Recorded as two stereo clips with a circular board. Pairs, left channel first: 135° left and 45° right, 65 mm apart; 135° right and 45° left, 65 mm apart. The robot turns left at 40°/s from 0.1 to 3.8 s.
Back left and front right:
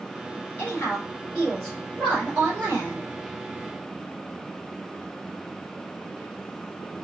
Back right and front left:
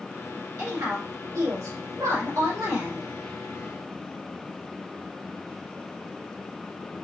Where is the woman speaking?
90° left, 2.5 m; by 3.1 s 10° right, 2.5 m.